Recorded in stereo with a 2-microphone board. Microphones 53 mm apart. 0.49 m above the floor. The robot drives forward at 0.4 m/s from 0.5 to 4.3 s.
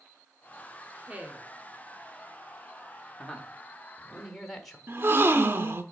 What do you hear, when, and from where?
1.0 s a woman speaking: 25° right (ahead or behind), 1.1 m
3.2 s a man speaking: 10° left (ahead or behind), 0.9 m; by 4.8 s 5° left (ahead or behind), 1.2 m
4.9 s a gasp: 45° right (ahead or behind), 0.5 m